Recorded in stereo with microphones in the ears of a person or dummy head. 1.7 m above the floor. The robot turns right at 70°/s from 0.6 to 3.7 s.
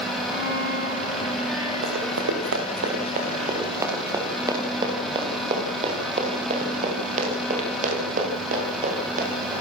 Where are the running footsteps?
55° right (ahead or behind), 6.5 m; by 9.5 s 50° right (ahead or behind), 13.5 m.